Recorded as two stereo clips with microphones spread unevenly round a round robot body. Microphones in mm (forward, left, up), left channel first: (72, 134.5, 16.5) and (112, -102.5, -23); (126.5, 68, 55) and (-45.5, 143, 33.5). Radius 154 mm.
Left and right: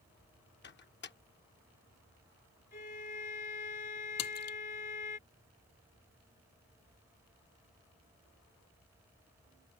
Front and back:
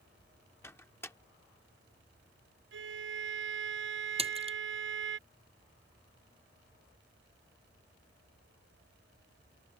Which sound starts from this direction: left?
A splash, at 4.2 s.